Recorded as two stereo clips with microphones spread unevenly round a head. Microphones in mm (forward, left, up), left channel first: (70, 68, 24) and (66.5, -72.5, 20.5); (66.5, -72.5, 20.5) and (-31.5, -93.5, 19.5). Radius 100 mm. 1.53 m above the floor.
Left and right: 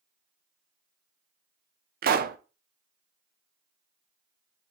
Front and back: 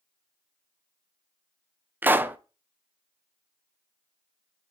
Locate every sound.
2.0 s a pop: 95° right, 0.6 m